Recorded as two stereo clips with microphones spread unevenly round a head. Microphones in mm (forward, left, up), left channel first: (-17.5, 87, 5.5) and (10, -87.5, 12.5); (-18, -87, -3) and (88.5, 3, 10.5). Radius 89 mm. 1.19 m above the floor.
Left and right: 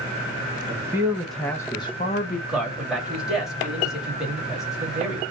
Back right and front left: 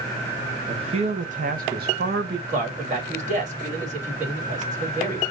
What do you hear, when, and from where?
0.7 s a man speaking: 10° right, 1.1 m; by 2.4 s 50° left, 1.0 m
2.5 s a man speaking: 5° left, 2.5 m